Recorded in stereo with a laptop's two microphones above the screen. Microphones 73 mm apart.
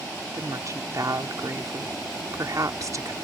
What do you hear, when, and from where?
0.3 s a woman speaking: 50° right (ahead or behind)